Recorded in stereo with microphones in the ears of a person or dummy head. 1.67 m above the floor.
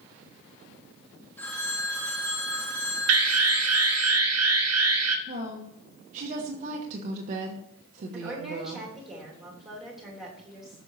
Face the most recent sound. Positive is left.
turn(degrees=0)  # may be behind; listen again after turning